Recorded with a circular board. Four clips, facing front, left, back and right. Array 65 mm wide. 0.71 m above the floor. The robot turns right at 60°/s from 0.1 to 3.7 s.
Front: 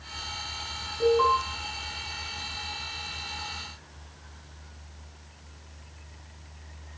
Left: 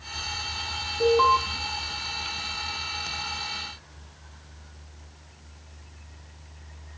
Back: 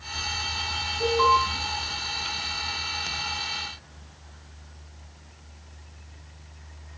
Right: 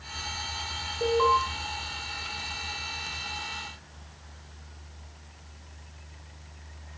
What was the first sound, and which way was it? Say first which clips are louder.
An alarm: left 3 dB, back 1 dB; 70° left.